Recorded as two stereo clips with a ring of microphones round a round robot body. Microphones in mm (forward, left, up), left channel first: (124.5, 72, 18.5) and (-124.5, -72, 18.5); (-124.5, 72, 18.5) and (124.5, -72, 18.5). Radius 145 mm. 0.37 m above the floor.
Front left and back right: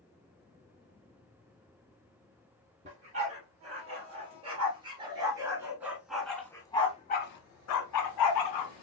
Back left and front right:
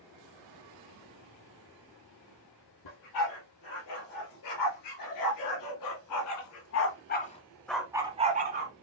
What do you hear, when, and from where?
2.9 s a dog barking: 145° left, 4 m; by 8.7 s 20° left, 1.3 m